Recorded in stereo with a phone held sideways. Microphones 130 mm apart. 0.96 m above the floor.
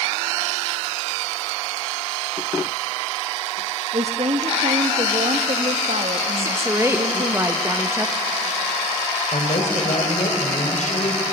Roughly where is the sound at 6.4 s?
Centre.